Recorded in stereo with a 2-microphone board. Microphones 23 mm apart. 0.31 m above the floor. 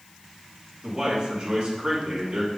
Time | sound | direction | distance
0.8 | a man speaking | 50° right (ahead or behind) | 3.5 m